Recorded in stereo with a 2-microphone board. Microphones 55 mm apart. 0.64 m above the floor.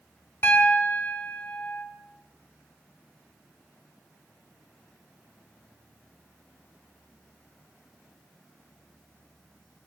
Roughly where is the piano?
Left.